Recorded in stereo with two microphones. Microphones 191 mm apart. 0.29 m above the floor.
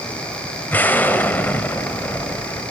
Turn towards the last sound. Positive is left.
turn(degrees=10)  # may be behind; listen again after turning